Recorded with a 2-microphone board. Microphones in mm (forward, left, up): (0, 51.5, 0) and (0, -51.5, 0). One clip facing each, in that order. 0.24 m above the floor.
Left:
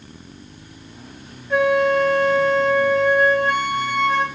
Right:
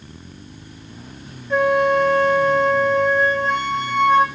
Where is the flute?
5° left (ahead or behind), 0.6 m.